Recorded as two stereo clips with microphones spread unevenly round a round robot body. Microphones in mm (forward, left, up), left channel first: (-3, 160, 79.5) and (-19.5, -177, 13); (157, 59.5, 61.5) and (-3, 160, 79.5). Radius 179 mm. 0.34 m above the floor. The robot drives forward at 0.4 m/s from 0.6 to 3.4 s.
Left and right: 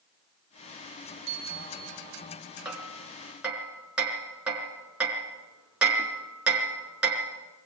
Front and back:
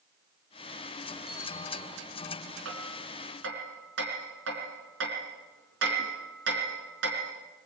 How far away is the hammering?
About 4.5 m.